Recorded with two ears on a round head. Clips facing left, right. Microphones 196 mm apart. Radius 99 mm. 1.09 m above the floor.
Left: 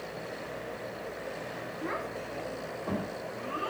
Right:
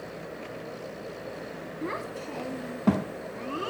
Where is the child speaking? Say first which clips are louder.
Right 3 dB; 40° right (ahead or behind), 1.5 m.